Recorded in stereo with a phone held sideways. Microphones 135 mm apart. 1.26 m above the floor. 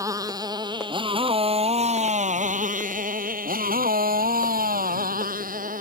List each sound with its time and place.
0.0 s a motorcycle: 25° right (ahead or behind); by 5.8 s 70° right (ahead or behind)